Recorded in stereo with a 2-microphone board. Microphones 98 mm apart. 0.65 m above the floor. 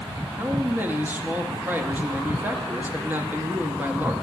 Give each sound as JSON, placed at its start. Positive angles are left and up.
{"t": 0.4, "sound": "a man speaking", "side_deg": -20, "distance_m": 0.6}